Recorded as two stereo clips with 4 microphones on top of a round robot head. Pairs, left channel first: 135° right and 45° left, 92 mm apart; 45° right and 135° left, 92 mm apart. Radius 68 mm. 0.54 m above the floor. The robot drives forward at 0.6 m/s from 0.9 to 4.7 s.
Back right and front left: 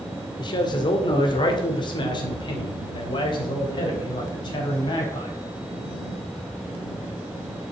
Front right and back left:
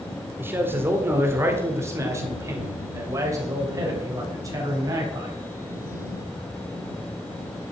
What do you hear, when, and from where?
0.4 s a man speaking: 160° right, 2 m; by 5.4 s 170° right, 4.5 m